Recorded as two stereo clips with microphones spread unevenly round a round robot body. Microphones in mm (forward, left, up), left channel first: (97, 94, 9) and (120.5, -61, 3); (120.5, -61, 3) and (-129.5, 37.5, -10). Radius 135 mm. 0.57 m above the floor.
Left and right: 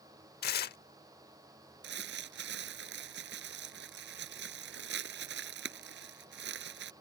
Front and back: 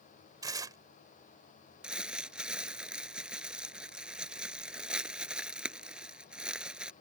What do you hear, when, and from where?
0.4 s tearing paper: 80° left
1.8 s crumpling: 115° right